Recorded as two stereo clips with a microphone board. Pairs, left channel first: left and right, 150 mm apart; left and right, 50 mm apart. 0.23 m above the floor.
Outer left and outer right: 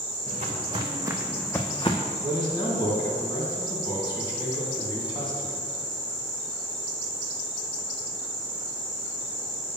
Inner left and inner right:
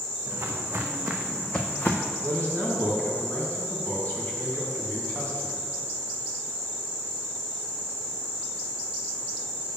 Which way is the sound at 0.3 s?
55° right (ahead or behind).